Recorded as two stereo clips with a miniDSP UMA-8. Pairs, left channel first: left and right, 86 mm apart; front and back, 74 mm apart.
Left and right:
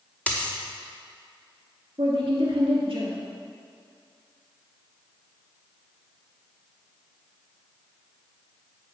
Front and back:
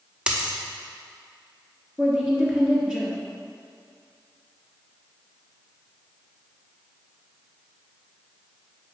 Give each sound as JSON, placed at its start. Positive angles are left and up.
{"t": 0.3, "sound": "a dropped coin", "azimuth_deg": 125, "distance_m": 0.8}
{"t": 2.0, "sound": "a woman speaking", "azimuth_deg": -105, "distance_m": 1.9}